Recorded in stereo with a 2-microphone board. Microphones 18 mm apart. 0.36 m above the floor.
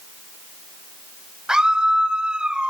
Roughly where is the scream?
Right.